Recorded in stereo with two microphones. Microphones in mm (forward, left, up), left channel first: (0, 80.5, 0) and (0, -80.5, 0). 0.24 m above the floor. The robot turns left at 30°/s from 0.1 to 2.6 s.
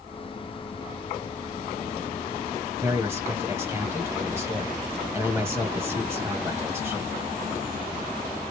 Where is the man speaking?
15° right (ahead or behind), 1.2 m.